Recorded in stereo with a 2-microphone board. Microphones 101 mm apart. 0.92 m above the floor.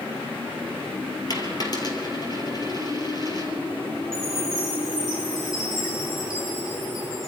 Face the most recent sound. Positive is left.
turn(degrees=40)  # may be behind; listen again after turning